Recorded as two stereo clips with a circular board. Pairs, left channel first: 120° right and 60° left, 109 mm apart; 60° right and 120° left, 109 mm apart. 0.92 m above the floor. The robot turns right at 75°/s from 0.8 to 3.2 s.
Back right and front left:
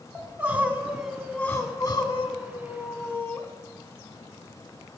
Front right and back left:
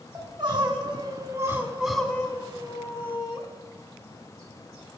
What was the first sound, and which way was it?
Crying, 125° left.